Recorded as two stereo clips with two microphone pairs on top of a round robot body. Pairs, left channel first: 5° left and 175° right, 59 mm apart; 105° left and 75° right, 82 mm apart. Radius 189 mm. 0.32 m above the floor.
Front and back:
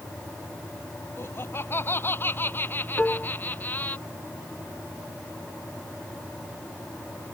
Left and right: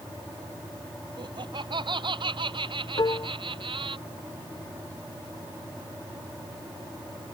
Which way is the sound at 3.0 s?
75° left.